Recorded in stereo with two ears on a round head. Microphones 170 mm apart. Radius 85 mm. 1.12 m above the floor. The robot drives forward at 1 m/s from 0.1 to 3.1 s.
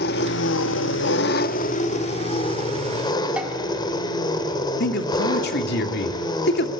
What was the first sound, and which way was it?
An engine running, 55° left (ahead or behind).